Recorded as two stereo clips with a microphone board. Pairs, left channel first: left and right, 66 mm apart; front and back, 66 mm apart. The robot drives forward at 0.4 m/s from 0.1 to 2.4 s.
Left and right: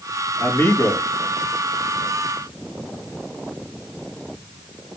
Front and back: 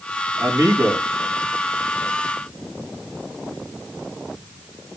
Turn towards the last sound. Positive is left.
turn(degrees=140)